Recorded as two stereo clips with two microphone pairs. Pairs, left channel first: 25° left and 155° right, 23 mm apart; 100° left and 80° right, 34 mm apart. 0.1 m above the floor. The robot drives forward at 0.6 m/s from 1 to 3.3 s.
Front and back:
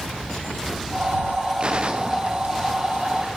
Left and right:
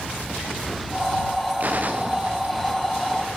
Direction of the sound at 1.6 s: 110° right.